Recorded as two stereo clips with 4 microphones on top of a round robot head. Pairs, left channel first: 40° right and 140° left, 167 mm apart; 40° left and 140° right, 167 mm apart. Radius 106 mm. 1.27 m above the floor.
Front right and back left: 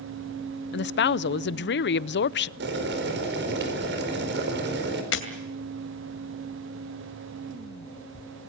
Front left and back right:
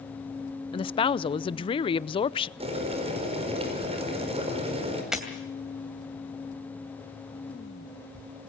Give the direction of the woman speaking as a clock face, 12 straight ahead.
1 o'clock.